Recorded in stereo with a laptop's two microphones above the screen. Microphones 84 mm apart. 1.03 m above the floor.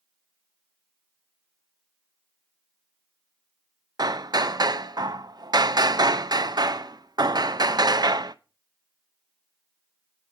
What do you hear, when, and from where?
4.0 s hammering: 50° right (ahead or behind), 0.6 m